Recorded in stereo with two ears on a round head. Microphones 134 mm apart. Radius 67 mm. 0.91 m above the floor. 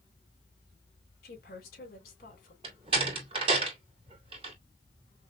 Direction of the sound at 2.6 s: 35° right (ahead or behind).